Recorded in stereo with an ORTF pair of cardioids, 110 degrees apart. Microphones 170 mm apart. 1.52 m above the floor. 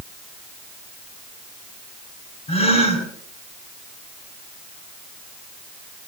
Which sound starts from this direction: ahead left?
A gasp, at 2.5 s.